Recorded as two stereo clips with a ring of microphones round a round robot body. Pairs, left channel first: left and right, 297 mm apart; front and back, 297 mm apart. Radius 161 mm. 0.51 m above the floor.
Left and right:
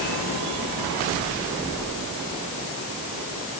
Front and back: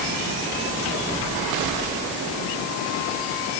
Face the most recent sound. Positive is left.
No sound to turn to.